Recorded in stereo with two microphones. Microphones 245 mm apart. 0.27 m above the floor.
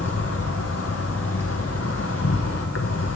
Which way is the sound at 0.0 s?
80° left.